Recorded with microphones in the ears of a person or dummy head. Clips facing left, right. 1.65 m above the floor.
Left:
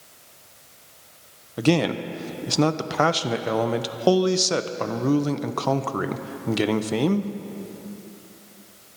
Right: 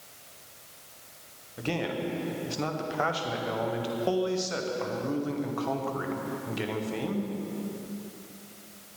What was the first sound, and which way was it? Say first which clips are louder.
A man speaking: left 10 dB; 75° left (ahead or behind).